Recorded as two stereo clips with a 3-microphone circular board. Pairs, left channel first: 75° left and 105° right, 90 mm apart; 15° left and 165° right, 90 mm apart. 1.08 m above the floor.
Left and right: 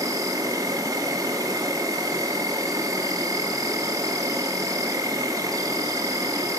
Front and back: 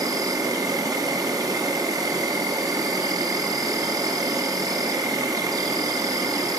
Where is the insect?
135° right, 0.9 m.